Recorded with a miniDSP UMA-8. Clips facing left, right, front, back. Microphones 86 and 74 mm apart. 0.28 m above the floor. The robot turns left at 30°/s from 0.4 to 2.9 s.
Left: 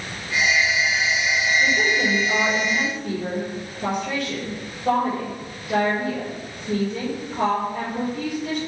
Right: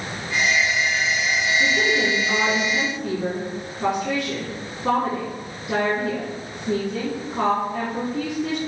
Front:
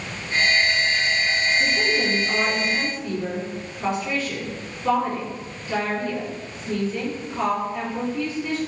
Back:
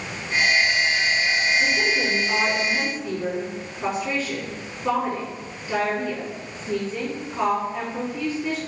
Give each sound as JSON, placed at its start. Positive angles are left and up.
{"t": 1.6, "sound": "a woman speaking", "azimuth_deg": -55, "distance_m": 3.5}